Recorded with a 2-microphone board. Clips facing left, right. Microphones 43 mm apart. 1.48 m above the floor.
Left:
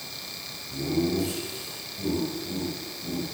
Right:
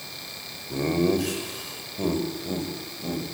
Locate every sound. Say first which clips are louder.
0.7 s laughter: right 3 dB; 70° right (ahead or behind), 6 m; by 3.2 s 45° right (ahead or behind), 7.5 m